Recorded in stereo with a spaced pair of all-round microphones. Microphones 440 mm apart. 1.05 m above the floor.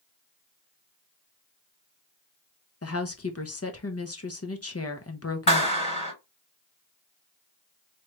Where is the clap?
65° left (ahead or behind), 3 m.